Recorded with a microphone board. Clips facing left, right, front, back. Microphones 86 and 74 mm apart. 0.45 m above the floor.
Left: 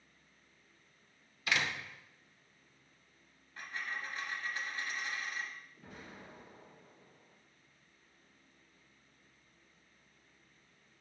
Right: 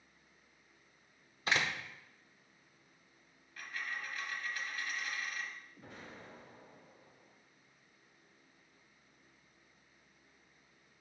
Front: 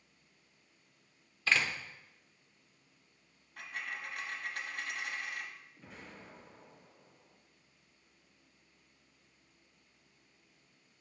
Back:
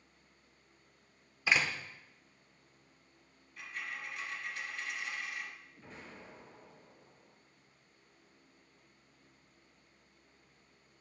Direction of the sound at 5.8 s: 90° right.